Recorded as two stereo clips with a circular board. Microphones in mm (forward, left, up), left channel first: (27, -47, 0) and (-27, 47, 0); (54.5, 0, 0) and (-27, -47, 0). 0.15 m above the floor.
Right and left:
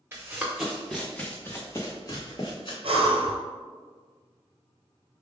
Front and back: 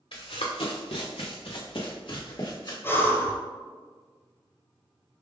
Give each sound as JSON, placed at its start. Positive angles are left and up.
{"t": 0.1, "sound": "running footsteps", "azimuth_deg": 50, "distance_m": 1.2}
{"t": 2.8, "sound": "breathing", "azimuth_deg": 95, "distance_m": 0.9}